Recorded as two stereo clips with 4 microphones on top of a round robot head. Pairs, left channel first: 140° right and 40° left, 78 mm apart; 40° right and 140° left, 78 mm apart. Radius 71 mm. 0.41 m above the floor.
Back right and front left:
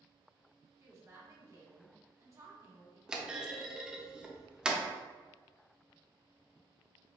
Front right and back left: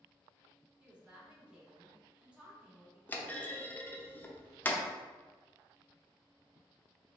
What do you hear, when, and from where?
0.8 s a woman speaking: 65° left, 1.4 m
3.1 s a clunk: 25° right, 0.6 m